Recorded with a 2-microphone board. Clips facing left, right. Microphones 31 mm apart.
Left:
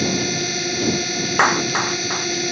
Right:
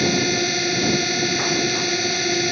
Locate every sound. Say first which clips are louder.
0.0 s a drone: right 2 dB; 15° right (ahead or behind)
1.4 s a clap: left 4 dB; 85° left